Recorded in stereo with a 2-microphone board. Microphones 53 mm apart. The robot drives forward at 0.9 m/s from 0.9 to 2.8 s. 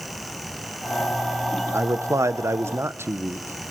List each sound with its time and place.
1.7 s a man speaking: 55° right (ahead or behind), 0.9 m